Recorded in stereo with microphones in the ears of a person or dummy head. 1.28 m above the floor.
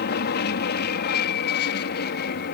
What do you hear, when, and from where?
0.0 s an aircraft: 45° left (ahead or behind)